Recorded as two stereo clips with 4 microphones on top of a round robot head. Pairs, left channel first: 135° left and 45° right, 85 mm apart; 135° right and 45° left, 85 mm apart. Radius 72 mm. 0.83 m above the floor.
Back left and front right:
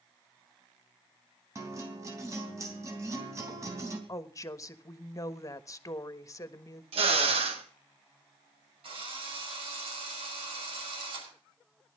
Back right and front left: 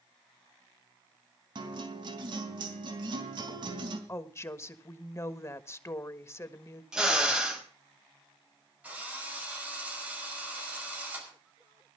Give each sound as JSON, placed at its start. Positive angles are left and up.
{"t": 1.6, "sound": "a guitar", "azimuth_deg": 10, "distance_m": 3.0}
{"t": 4.1, "sound": "a woman speaking", "azimuth_deg": 175, "distance_m": 1.4}
{"t": 6.9, "sound": "a drill", "azimuth_deg": -35, "distance_m": 3.5}
{"t": 8.8, "sound": "a drill", "azimuth_deg": -30, "distance_m": 5.5}